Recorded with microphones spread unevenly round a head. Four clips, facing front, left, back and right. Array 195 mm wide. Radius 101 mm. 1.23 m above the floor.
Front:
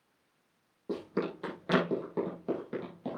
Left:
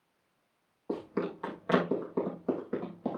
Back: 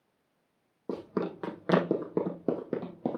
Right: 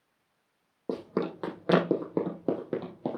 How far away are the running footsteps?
About 3.5 m.